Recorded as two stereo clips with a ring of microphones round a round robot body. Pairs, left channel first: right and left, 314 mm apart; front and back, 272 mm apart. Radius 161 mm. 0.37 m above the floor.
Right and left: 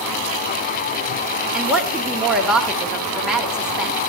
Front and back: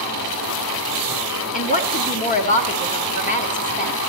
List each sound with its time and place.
1.5 s a woman speaking: 5° left, 1.4 m